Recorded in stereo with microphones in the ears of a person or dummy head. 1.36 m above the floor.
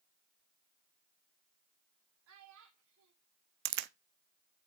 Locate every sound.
2.3 s a child speaking: 80° right, 3 m
3.6 s a crack: 60° right (ahead or behind), 0.8 m